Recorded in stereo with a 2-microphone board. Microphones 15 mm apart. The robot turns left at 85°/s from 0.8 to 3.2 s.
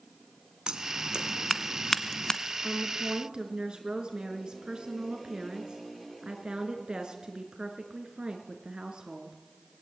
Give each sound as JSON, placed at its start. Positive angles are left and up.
{"t": 0.7, "sound": "scissors", "side_deg": -85, "distance_m": 1.2}
{"t": 2.6, "sound": "a woman speaking", "azimuth_deg": -55, "distance_m": 4.5}